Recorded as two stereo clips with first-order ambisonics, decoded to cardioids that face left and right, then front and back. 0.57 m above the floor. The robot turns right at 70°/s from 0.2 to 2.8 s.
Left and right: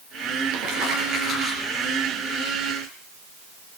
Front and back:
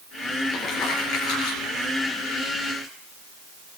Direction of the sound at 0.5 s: 75° right.